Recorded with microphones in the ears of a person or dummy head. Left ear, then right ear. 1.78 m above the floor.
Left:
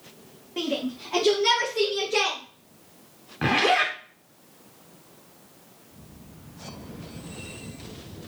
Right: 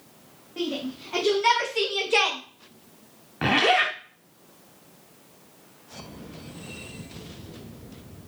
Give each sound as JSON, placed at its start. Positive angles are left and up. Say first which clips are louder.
{"t": 0.6, "sound": "a shout", "louder": "left 2 dB", "side_deg": 25, "distance_m": 0.8}
{"t": 3.4, "sound": "a zipper", "louder": "right 1 dB", "side_deg": -10, "distance_m": 0.5}